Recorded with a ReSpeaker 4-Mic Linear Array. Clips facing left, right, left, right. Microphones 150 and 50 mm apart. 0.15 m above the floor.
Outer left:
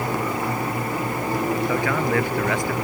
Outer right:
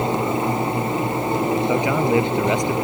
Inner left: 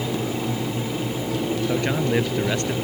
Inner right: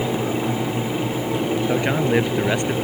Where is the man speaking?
20° right (ahead or behind).